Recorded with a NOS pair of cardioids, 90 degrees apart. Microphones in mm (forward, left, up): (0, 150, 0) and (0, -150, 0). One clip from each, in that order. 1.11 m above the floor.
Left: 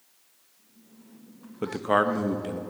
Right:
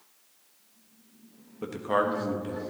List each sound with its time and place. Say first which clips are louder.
1.6 s a man speaking: left 3 dB; 35° left, 1.1 m